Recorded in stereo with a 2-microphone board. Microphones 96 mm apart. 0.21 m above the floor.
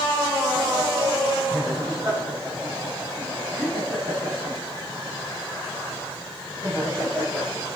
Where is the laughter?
45° right (ahead or behind), 9.5 m; by 7.5 s 25° right (ahead or behind), 8.5 m.